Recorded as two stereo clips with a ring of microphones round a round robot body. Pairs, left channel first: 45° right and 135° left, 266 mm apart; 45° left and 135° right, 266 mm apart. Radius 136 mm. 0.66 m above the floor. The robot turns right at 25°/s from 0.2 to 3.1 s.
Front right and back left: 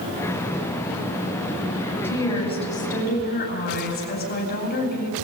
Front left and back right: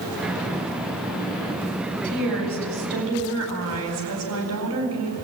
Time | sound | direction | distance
2.0 | a woman speaking | 125° right | 4.5 m